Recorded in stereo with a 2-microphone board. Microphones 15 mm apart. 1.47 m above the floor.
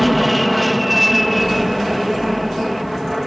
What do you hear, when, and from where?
0.0 s an aircraft: centre (ahead or behind)